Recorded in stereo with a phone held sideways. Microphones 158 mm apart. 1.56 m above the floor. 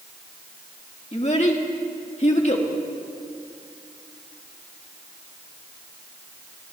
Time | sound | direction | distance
1.1 | a child speaking | 45° left (ahead or behind) | 1.8 m